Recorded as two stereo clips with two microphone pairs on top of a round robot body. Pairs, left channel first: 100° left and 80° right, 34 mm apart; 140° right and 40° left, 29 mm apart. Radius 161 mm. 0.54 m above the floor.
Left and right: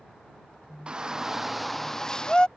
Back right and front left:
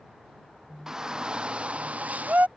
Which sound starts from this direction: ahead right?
A shout, at 0.9 s.